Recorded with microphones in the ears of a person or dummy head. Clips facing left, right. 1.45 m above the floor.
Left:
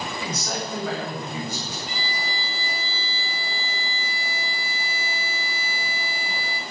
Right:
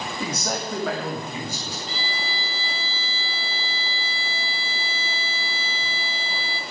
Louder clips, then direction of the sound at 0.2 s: Right 5 dB; 40° right (ahead or behind).